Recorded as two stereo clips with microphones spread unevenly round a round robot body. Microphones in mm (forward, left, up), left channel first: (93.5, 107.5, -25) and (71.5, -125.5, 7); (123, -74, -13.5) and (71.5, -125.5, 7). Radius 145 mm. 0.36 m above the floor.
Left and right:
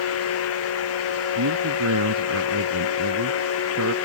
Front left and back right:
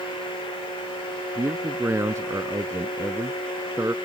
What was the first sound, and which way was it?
A man speaking, 85° right.